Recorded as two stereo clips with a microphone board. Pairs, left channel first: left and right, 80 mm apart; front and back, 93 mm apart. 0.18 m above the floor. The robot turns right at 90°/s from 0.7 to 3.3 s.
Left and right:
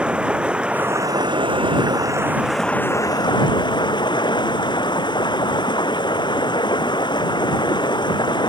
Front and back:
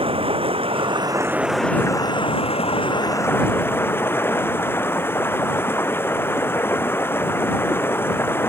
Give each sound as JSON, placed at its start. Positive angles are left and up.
{"t": 0.0, "sound": "running water", "azimuth_deg": -170}